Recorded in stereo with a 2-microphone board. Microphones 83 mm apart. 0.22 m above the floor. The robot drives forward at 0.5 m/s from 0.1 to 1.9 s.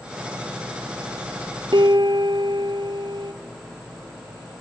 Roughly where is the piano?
Right.